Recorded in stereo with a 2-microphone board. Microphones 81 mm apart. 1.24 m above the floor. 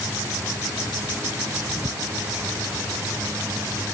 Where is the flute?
No flute in this recording.